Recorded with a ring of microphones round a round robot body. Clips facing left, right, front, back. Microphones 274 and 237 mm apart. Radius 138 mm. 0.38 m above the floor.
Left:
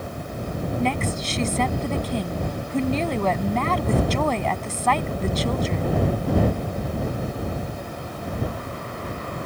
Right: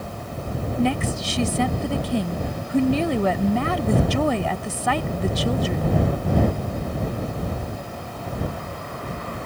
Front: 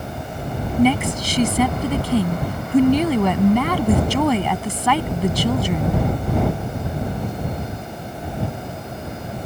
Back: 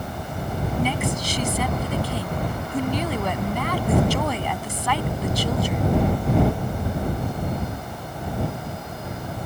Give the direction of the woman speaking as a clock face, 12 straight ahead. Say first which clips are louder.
Right 4 dB, front 10 dB; 12 o'clock.